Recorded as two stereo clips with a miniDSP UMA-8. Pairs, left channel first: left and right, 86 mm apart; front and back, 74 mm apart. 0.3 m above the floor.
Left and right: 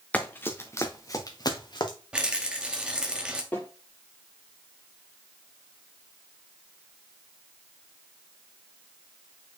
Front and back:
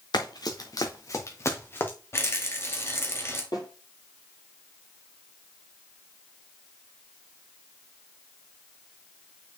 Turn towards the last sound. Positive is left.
turn(degrees=15)